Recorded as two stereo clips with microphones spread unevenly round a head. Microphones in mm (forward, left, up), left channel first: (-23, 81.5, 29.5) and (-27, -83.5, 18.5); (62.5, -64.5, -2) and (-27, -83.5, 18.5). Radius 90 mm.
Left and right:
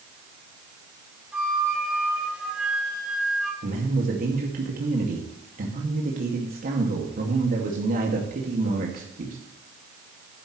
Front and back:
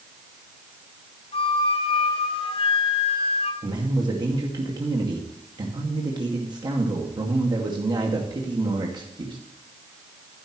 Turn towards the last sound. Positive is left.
turn(degrees=-125)